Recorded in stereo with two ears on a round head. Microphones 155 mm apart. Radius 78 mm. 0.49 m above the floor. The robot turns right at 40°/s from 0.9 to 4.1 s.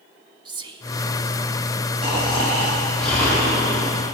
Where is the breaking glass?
I don't hear breaking glass.